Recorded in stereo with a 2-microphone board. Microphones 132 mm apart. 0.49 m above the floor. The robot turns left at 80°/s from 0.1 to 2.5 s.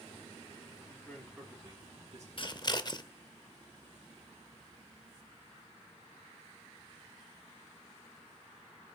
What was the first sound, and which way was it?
A man speaking, 30° left.